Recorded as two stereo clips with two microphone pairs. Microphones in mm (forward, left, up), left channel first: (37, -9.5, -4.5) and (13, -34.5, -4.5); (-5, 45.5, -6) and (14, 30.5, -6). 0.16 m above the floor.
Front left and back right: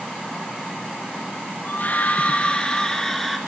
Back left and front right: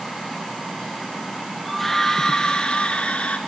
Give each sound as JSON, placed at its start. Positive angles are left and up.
{"t": 1.6, "sound": "a scream", "azimuth_deg": 55, "distance_m": 2.0}